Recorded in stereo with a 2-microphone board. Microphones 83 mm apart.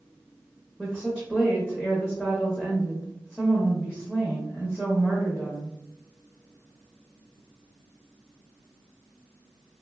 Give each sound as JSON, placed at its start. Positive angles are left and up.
{"t": 0.8, "sound": "a woman speaking", "side_deg": -10, "distance_m": 0.6}